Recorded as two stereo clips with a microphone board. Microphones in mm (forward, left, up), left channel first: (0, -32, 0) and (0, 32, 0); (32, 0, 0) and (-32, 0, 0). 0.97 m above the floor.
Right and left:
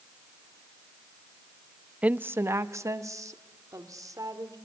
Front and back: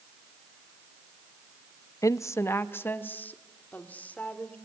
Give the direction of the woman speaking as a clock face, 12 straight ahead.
11 o'clock.